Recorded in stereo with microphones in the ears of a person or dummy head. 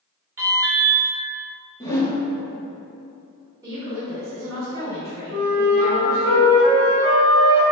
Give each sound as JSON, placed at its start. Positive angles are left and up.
{"t": 0.4, "sound": "an alarm", "side_deg": -15, "distance_m": 1.0}
{"t": 1.8, "sound": "a whoosh", "side_deg": 20, "distance_m": 0.8}
{"t": 3.6, "sound": "a woman speaking", "side_deg": -25, "distance_m": 1.8}
{"t": 5.3, "sound": "a flute", "side_deg": -65, "distance_m": 1.4}